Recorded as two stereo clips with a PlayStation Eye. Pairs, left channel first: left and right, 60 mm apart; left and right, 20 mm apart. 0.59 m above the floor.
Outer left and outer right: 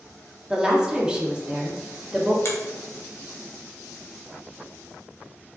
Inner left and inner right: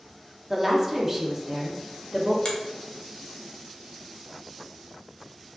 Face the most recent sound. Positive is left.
turn(degrees=55)  # may be behind; listen again after turning